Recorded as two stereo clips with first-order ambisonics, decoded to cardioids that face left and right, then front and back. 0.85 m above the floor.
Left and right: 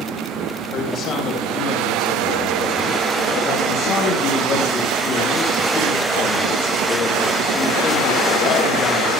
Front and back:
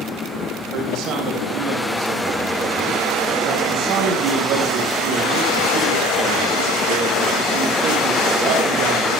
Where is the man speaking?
145° left, 4.5 m.